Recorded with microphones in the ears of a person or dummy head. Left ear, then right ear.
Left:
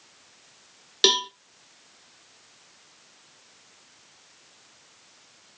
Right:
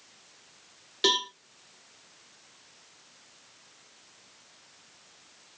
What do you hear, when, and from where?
1.0 s a cowbell: 25° left (ahead or behind), 0.7 m